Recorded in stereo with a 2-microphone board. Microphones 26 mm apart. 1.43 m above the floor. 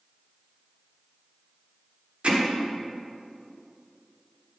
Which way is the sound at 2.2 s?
45° right (ahead or behind).